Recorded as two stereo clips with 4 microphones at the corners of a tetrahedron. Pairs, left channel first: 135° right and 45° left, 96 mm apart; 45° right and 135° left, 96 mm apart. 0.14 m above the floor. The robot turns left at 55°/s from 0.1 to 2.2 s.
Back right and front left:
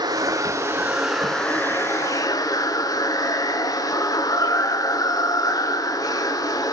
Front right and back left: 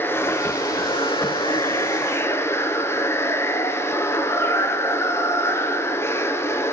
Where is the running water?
15° left, 0.8 m; by 6.7 s 100° right, 0.8 m.